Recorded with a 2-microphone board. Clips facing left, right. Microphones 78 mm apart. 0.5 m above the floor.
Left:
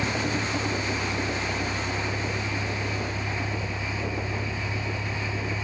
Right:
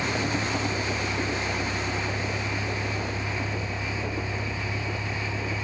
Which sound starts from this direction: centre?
A vehicle, at 0.0 s.